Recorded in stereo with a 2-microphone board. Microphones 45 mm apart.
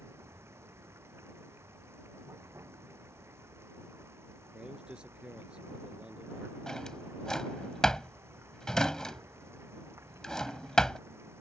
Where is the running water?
65° right (ahead or behind).